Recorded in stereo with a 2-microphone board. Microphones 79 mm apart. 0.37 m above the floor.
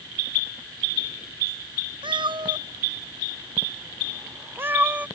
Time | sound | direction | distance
2.0 | a cat meowing | 85° right | ?